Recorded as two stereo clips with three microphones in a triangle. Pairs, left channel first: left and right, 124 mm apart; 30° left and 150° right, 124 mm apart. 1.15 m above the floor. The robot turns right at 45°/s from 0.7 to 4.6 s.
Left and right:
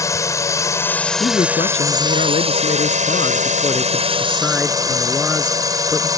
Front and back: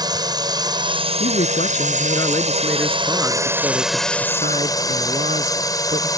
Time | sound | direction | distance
0.0 | a drone | 155° left | ?
1.2 | a man speaking | 35° left | ?